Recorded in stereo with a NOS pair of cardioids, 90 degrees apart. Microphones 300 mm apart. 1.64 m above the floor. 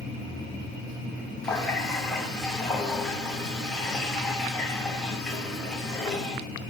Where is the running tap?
Straight ahead, 1.9 m.